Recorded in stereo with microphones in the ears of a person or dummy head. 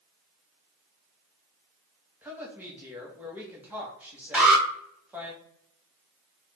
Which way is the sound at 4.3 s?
10° right (ahead or behind).